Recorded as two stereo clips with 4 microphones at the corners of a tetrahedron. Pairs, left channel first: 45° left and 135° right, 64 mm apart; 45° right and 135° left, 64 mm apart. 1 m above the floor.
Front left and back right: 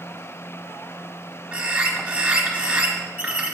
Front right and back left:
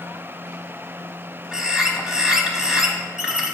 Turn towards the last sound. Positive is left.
turn(degrees=-165)